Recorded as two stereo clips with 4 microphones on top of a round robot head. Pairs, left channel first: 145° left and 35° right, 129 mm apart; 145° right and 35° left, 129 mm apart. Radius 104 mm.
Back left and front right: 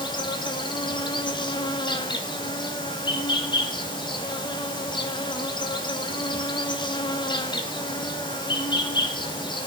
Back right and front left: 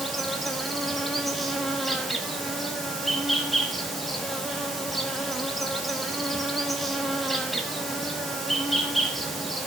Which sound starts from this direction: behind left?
An insect, at 0.0 s.